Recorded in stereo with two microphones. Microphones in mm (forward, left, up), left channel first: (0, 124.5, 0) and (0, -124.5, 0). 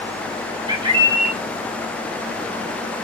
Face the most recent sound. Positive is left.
turn(degrees=-20)  # may be behind; listen again after turning